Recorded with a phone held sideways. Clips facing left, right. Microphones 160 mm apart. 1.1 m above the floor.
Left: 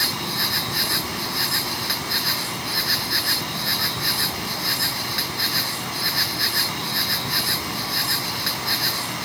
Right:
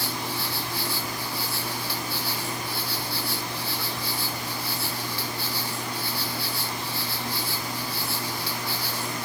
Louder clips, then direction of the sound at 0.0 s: Left 2 dB; 70° left (ahead or behind).